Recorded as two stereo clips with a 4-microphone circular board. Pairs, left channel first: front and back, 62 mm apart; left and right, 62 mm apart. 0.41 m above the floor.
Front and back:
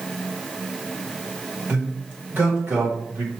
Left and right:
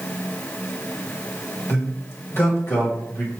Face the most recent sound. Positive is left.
turn(degrees=130)